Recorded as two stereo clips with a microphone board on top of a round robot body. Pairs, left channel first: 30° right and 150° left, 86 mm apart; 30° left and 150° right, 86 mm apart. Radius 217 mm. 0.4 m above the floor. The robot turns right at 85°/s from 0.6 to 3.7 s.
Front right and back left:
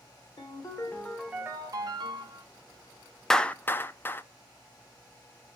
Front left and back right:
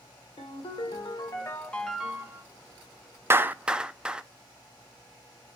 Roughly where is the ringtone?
Ahead.